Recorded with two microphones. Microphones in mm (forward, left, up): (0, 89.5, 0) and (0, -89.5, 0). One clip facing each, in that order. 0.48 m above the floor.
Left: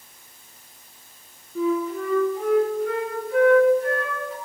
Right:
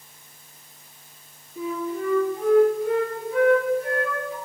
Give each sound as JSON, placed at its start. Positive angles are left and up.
{"t": 1.6, "sound": "a flute", "side_deg": 80, "distance_m": 3.5}